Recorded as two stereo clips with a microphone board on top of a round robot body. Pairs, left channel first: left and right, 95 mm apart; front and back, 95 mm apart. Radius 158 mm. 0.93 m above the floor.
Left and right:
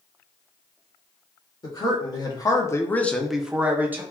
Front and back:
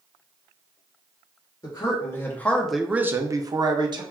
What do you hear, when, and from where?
1.6 s a man speaking: 55° left, 1.0 m; by 4.0 s 155° right, 0.9 m